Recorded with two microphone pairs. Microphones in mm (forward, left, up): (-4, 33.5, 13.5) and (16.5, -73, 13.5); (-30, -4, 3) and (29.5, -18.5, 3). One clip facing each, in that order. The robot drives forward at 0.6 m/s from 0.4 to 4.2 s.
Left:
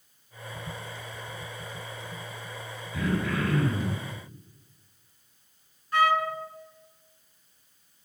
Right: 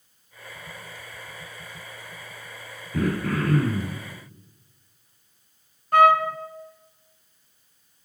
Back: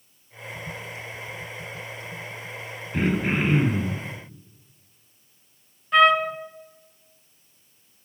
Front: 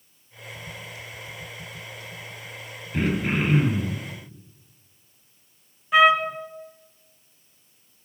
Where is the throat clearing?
110° right, 2.5 m; by 4.0 s 125° right, 2.5 m.